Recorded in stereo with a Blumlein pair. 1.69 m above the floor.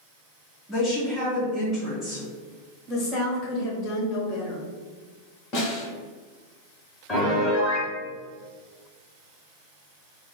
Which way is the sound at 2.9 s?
30° left.